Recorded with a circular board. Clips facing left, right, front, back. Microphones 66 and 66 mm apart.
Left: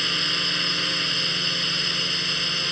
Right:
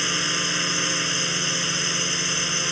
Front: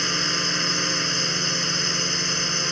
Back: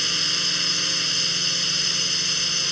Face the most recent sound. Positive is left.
turn(degrees=-25)